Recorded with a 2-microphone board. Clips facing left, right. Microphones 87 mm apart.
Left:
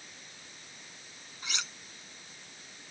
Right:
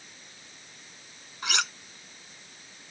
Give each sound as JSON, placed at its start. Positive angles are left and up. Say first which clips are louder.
{"t": 1.4, "sound": "cutlery clinking", "louder": "right 10 dB", "side_deg": -70}